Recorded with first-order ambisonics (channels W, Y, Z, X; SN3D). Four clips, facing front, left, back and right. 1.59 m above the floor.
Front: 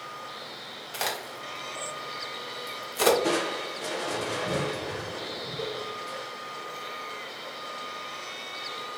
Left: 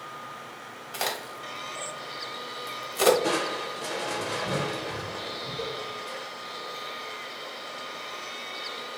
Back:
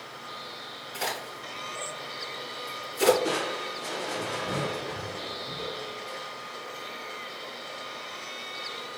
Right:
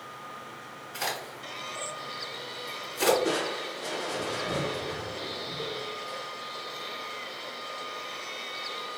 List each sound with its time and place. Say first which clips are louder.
0.9 s a crack: left 2 dB, front 1 dB; 45° left, 1.0 m
3.2 s crushing: left 2 dB, front 2 dB; 50° left, 0.8 m